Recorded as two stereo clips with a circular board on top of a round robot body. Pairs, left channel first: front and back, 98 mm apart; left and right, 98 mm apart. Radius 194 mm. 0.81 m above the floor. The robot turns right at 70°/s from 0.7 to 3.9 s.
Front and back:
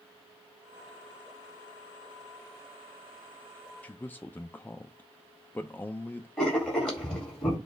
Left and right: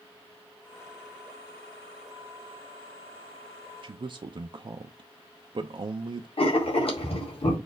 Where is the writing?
85° left, 2.5 m.